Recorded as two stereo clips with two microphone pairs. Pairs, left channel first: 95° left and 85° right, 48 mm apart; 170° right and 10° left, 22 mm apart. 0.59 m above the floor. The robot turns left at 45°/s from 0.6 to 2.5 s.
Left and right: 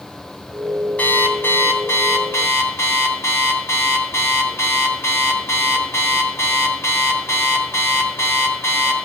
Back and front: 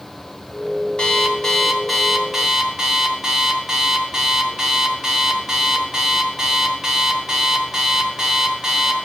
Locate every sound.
1.0 s an alarm clock: 150° left, 2.5 m; by 8.9 s 80° left, 2.5 m